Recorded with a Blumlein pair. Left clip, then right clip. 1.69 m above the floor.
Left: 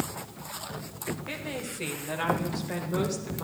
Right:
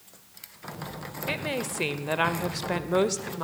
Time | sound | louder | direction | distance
1.3 | a woman speaking | right 5 dB | 65° right | 0.8 m